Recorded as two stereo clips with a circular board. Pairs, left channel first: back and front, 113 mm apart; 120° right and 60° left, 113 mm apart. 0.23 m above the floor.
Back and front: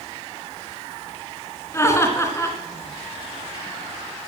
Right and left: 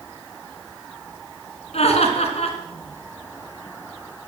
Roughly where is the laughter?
Behind right.